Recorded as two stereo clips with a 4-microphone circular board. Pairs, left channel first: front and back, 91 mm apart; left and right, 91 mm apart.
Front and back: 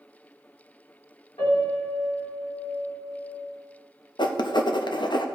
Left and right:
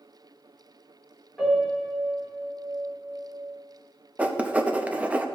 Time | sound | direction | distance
1.4 | a piano | 5° left | 3 m
4.2 | writing | 15° right | 0.6 m